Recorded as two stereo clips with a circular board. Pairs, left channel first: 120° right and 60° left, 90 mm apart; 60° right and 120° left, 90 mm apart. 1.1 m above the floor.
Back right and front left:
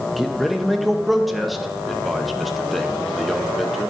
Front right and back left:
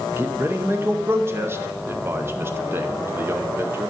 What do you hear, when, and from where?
0.2 s a man speaking: 150° left, 0.7 m